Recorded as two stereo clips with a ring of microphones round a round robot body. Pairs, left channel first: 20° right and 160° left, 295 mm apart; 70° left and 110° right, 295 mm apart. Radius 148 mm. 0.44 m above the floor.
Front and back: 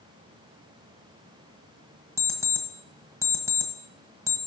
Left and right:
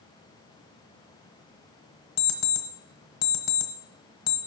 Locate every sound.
2.2 s an alarm clock: 75° left, 1.3 m